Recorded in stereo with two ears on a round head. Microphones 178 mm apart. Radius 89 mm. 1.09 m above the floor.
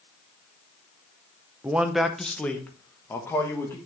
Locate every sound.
1.6 s a man speaking: 10° right (ahead or behind), 0.6 m; by 3.8 s 15° left (ahead or behind), 1.6 m